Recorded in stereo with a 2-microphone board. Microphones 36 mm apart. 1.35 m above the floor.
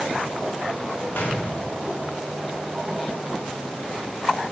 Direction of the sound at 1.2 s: 80° left.